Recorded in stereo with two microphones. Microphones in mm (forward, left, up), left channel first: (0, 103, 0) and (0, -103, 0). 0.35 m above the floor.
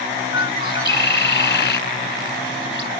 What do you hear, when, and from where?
0.3 s a bird: 65° left (ahead or behind)